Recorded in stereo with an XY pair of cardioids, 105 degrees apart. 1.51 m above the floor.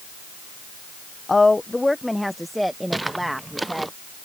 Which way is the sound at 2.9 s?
10° right.